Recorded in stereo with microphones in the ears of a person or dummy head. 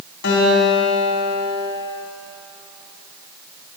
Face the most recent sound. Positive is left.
turn(degrees=55)  # may be behind; listen again after turning